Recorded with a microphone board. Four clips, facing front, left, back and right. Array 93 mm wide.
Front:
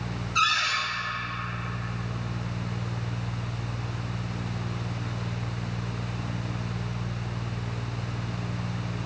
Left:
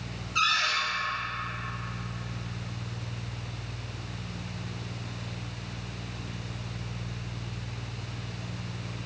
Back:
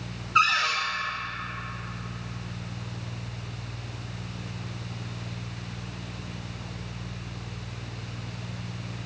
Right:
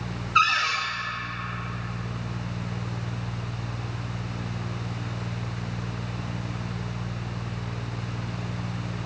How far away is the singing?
No singing in this recording.